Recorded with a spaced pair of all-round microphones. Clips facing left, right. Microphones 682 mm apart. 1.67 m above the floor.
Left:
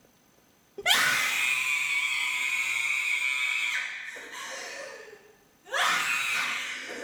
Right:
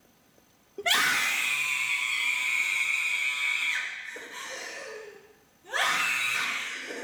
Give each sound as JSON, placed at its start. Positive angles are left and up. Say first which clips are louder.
{"t": 0.8, "sound": "a scream", "louder": "right 1 dB", "side_deg": 30, "distance_m": 0.6}